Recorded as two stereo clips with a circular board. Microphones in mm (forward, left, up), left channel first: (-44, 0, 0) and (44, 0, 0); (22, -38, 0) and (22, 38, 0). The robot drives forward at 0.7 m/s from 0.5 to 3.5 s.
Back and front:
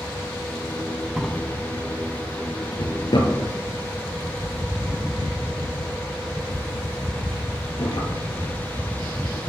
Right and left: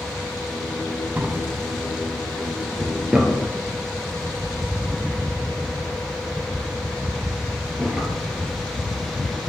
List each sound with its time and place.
1.2 s a drawer: 95° left, 0.6 m; by 9.4 s 170° left, 1.8 m